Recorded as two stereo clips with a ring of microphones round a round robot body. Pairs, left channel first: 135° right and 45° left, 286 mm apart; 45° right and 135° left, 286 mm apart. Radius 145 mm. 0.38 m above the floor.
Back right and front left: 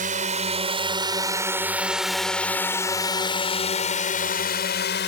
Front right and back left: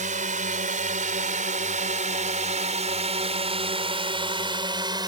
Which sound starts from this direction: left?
A drone, at 0.0 s.